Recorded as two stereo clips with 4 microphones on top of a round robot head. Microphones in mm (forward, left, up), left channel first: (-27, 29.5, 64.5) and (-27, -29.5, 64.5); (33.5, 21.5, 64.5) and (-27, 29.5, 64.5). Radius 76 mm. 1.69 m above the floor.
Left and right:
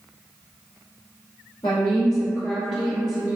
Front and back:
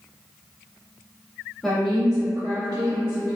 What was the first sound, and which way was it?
A woman speaking, 75° left.